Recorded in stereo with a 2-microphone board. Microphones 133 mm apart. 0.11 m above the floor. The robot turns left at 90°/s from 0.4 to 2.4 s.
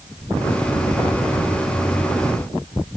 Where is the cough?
I don't hear a cough.